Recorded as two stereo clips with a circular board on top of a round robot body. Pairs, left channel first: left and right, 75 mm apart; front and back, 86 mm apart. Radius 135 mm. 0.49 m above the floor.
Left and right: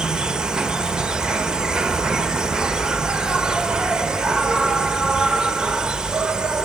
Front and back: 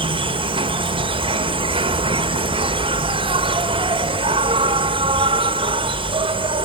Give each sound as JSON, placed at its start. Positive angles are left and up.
{"t": 0.0, "sound": "an insect", "azimuth_deg": -170, "distance_m": 1.3}